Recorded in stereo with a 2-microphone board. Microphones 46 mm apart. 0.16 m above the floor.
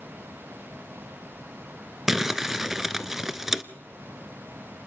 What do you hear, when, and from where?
2.1 s crumpling: 10° right (ahead or behind), 0.8 m